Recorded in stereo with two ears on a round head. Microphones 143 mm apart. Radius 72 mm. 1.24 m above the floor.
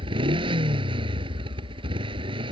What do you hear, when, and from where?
0.0 s a motorcycle: 35° right (ahead or behind)